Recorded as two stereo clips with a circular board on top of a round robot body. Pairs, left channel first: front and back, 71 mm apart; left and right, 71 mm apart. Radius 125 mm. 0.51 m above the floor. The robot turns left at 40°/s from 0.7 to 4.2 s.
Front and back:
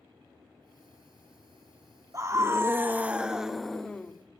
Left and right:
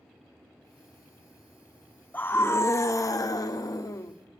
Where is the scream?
150° left, 1.9 m; by 4.1 s 70° left, 1.9 m.